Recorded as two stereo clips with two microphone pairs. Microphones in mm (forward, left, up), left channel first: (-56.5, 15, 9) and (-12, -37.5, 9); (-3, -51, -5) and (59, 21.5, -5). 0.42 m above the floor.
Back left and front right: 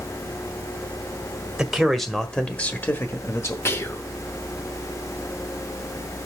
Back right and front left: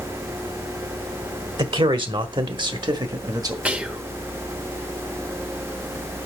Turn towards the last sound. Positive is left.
turn(degrees=115)